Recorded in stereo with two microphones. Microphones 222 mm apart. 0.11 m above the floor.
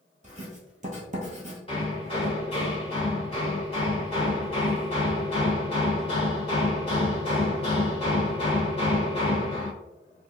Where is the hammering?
25° left (ahead or behind), 1.3 m.